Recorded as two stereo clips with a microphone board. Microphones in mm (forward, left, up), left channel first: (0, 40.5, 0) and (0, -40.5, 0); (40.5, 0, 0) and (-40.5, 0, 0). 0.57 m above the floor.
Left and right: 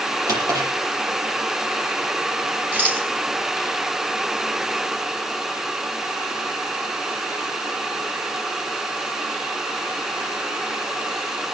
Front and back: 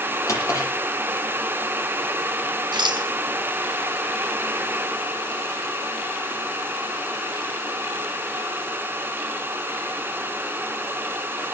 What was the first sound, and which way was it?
A drawer, 50° right.